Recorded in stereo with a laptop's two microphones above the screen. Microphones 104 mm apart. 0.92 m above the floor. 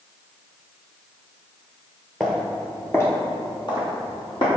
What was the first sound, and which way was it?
Footsteps, centre (ahead or behind).